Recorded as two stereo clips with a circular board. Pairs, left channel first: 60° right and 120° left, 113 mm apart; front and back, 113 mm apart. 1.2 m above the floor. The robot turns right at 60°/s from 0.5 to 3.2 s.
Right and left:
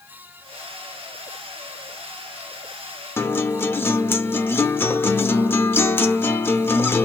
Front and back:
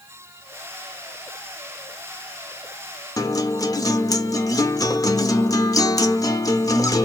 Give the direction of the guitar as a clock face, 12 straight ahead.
12 o'clock.